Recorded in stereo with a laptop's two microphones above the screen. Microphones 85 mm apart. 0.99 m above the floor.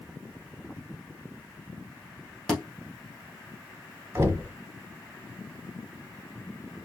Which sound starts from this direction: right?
Knocking, at 4.2 s.